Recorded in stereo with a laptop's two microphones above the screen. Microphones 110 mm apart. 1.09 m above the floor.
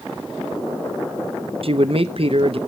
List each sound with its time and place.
1.6 s a man speaking: 60° right (ahead or behind), 0.6 m